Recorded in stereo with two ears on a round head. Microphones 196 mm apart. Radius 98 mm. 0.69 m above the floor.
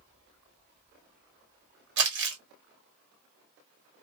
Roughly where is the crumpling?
Right.